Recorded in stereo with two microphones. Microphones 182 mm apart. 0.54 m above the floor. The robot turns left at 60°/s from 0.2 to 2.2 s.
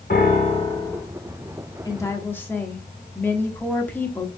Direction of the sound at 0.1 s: 55° left.